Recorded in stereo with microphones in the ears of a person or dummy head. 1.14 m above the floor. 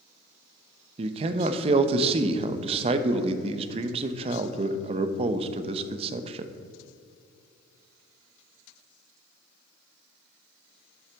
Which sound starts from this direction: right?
A man speaking, at 1.0 s.